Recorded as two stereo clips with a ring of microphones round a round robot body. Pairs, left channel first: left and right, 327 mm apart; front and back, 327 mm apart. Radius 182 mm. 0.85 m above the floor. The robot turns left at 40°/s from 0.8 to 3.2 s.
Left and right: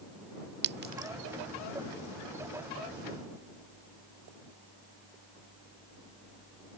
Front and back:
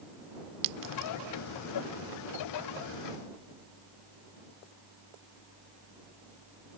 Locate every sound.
0.6 s a clink: 150° right; by 1.1 s 165° right